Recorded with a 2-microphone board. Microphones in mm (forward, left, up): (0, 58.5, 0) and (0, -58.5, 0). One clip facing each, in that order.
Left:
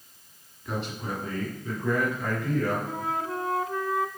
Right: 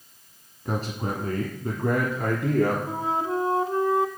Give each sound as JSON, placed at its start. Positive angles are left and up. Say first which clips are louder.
{"t": 0.7, "sound": "a man speaking", "louder": "right 4 dB", "side_deg": -40, "distance_m": 1.5}
{"t": 2.9, "sound": "a flute", "louder": "right 4 dB", "side_deg": -30, "distance_m": 0.6}